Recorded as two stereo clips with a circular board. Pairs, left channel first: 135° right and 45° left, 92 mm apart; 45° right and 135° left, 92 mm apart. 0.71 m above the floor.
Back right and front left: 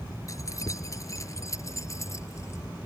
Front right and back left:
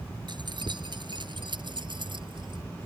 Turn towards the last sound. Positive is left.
turn(degrees=170)